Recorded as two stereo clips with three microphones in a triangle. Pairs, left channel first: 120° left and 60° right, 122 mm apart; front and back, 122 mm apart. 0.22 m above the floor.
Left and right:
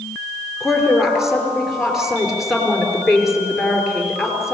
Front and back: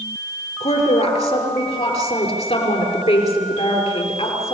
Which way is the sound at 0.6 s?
25° left.